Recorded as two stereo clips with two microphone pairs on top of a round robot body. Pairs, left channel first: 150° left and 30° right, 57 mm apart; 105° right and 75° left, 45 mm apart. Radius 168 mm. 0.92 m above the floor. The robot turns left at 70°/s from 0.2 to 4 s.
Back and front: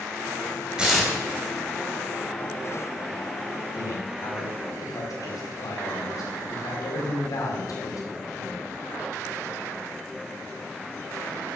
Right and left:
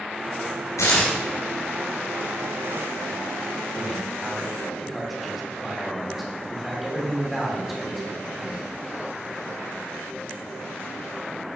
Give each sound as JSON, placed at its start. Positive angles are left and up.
{"t": 0.8, "sound": "tearing paper", "azimuth_deg": -105, "distance_m": 2.5}
{"t": 3.8, "sound": "a man speaking", "azimuth_deg": 180, "distance_m": 3.5}